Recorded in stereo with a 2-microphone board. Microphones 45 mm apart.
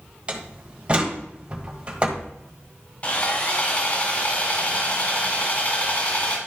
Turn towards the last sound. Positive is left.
turn(degrees=30)  # may be behind; listen again after turning